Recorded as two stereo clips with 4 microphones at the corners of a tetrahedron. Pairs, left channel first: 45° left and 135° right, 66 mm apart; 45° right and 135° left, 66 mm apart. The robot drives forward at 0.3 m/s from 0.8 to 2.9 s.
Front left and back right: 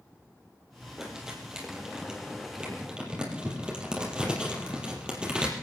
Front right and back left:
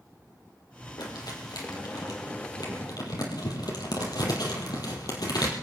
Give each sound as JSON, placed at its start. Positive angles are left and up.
{"t": 1.0, "sound": "crumpling", "azimuth_deg": -50, "distance_m": 4.5}